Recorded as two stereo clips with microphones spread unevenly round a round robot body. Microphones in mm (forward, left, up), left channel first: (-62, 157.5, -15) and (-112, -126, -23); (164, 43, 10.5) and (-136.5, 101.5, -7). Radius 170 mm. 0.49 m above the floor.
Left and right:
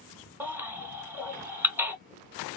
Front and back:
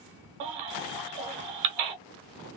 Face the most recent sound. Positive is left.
turn(degrees=175)